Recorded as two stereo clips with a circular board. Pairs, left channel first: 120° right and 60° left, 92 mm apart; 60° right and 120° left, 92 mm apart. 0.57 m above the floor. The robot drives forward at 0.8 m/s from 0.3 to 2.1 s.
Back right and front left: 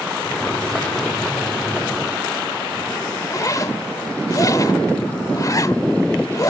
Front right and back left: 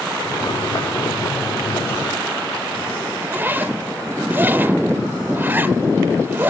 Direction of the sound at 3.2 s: 170° right.